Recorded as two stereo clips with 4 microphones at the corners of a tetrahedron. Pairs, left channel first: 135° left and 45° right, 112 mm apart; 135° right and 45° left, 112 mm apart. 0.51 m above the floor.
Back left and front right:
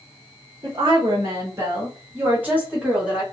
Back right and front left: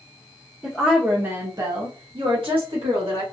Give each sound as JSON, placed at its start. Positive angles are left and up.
{"t": 0.6, "sound": "a woman speaking", "azimuth_deg": -45, "distance_m": 1.0}